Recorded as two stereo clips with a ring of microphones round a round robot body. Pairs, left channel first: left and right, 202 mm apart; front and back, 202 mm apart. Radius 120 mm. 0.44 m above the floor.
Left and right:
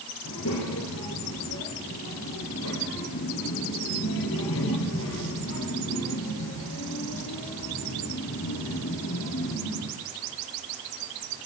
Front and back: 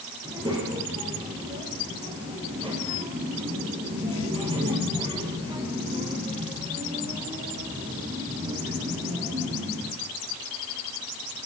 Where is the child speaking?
115° left, 7 m.